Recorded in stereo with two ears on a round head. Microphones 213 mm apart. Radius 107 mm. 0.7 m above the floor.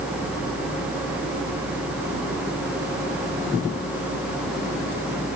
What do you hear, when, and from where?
Only background noise.